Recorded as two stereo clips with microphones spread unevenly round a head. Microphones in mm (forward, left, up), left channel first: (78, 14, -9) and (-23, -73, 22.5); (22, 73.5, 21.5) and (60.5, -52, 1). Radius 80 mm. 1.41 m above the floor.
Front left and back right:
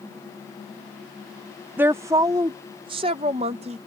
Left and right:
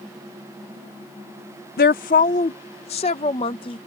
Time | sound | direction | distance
1.8 | a woman speaking | 140° left | ?